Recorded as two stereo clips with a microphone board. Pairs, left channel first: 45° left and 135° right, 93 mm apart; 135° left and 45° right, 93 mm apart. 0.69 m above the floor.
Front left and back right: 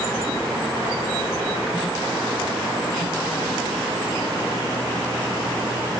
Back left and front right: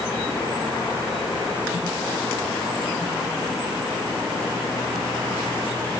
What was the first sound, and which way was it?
Only background noise.